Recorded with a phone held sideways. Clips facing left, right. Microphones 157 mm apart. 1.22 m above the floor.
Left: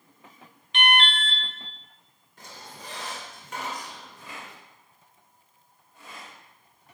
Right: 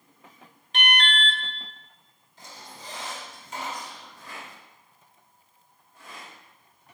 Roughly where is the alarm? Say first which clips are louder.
Left 3 dB; right.